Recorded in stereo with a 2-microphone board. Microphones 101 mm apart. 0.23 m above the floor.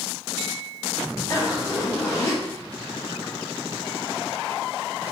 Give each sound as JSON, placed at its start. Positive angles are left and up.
{"t": 1.3, "sound": "a zipper", "side_deg": 35, "distance_m": 1.8}